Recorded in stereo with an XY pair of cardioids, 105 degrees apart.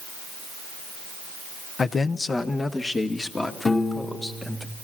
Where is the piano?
20° left, 2 m.